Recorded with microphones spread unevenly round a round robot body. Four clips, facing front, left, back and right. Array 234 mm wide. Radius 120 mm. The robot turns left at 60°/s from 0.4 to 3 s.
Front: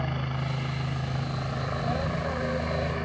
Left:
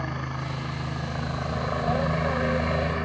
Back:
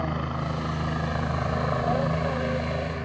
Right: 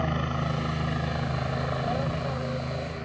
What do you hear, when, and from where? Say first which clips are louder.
0.0 s a helicopter: right 4 dB, back 3 dB; 120° right; by 3.1 s 85° left